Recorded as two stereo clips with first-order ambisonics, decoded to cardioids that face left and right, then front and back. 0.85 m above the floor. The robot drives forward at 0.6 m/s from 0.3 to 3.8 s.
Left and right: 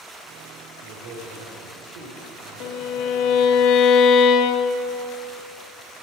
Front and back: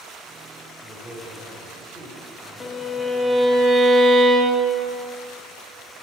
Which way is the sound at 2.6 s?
65° left.